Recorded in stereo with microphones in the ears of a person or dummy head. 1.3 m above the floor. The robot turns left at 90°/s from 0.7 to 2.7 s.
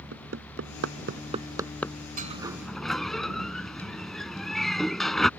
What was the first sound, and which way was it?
Hammering, 85° right.